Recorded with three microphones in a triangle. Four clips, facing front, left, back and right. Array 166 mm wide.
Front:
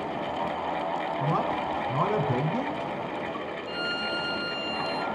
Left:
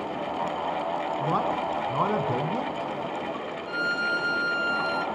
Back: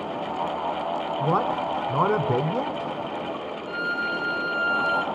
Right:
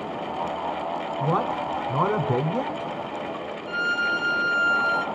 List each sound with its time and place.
1.2 s a man speaking: 170° right, 1.2 m
3.7 s a violin: 70° right, 0.5 m